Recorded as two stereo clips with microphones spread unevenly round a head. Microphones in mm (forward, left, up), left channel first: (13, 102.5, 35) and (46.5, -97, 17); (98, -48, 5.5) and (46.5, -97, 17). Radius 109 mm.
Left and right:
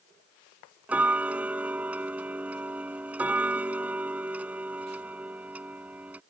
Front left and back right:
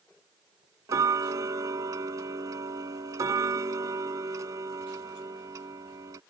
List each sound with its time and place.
0.9 s ticking: 165° right